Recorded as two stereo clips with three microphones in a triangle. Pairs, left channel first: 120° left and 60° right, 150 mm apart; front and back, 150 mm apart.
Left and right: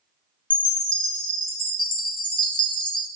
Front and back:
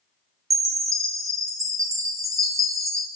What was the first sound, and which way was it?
A chime, 135° left.